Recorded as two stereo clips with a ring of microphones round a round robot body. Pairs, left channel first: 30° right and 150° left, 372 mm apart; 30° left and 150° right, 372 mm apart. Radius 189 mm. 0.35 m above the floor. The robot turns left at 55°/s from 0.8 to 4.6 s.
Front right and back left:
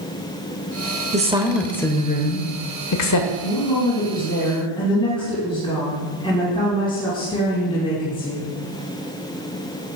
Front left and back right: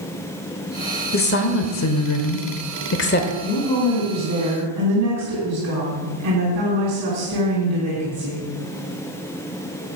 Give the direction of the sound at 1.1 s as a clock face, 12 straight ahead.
9 o'clock.